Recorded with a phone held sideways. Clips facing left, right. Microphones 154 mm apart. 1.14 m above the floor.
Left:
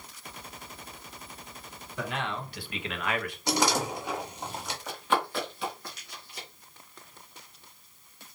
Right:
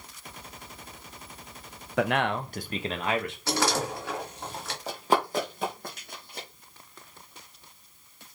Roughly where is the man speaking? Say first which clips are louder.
Right 8 dB; right.